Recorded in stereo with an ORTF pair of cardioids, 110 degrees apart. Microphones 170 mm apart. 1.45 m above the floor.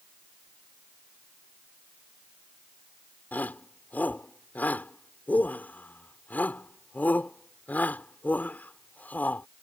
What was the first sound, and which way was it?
A shout, 10° left.